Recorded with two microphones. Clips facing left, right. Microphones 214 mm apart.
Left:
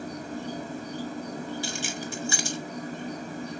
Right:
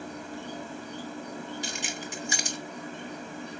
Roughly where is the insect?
Left.